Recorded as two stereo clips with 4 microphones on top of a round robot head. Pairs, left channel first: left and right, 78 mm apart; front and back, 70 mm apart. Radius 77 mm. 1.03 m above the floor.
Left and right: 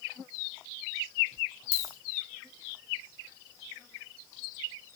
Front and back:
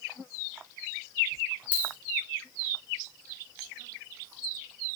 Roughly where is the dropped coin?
Ahead left.